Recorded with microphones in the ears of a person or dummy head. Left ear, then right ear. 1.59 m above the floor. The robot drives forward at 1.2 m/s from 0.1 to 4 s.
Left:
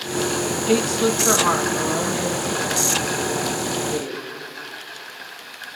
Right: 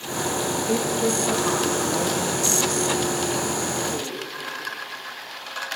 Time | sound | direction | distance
0.7 | a woman speaking | 60° left (ahead or behind) | 1.3 m